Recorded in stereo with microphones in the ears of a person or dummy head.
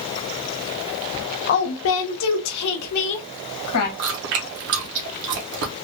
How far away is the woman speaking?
About 0.7 m.